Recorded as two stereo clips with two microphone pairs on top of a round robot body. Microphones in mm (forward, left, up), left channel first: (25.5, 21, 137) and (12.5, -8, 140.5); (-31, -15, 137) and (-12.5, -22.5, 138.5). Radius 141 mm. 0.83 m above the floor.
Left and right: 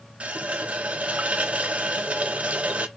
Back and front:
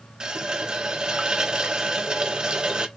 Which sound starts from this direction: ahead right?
A running tap, at 0.2 s.